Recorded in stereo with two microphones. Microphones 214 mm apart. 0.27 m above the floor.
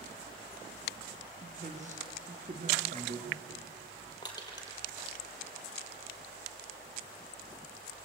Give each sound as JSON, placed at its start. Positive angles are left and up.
{"t": 1.4, "sound": "a man speaking", "side_deg": -35, "distance_m": 4.5}
{"t": 4.2, "sound": "crushing", "side_deg": 20, "distance_m": 4.5}